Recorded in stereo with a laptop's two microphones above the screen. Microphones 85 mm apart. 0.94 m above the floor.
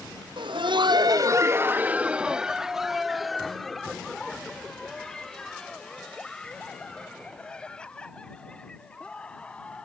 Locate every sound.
0.4 s laughter: 70° right (ahead or behind); by 9.9 s 15° left (ahead or behind)